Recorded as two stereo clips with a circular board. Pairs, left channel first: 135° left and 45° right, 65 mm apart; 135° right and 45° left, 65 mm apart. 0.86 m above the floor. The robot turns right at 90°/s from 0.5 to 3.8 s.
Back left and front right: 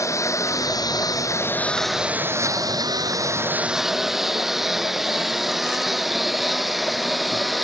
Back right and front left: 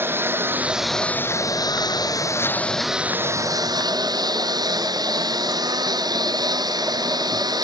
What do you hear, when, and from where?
0.0 s a lawn mower: 100° left; by 7.6 s 45° left